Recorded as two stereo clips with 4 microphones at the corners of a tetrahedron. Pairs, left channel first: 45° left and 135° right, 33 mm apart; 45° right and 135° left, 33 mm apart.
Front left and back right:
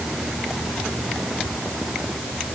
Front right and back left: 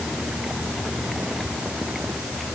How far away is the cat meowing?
I don't hear a cat meowing.